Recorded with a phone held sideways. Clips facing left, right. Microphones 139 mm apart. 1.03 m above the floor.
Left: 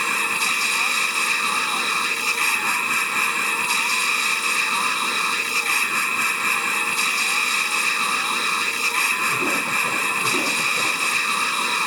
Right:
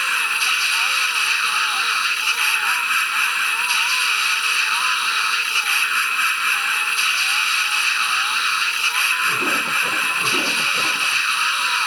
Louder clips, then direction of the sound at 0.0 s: Left 1 dB; 40° left (ahead or behind).